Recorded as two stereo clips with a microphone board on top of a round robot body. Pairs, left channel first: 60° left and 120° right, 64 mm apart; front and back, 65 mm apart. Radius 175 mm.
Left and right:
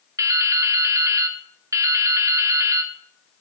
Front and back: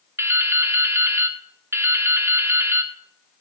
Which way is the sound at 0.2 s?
140° right.